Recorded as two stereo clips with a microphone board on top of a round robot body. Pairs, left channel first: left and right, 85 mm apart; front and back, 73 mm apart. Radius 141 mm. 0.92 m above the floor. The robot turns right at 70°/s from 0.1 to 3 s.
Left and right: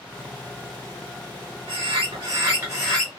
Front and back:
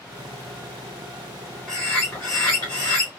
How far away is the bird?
About 0.9 m.